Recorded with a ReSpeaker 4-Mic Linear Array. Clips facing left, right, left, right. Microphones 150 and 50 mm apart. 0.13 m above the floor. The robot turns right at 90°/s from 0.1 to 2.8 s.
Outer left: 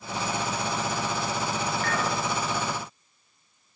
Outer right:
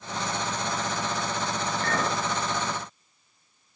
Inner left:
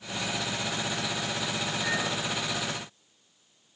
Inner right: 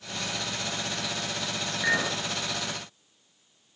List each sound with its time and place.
1.8 s a clink: 130° right, 1.1 m; by 2.2 s 95° right, 1.1 m